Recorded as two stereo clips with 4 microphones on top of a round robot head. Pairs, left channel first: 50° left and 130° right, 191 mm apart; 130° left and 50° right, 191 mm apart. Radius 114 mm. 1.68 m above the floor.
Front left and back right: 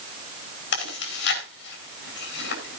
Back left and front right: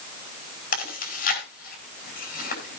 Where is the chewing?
85° left, 5.5 m.